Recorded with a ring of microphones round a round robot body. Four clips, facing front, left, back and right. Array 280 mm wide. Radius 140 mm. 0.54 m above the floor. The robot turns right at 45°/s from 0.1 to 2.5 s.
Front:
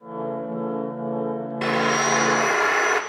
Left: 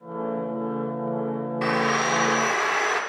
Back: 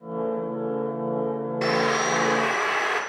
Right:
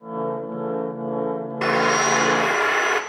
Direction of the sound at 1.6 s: 80° right.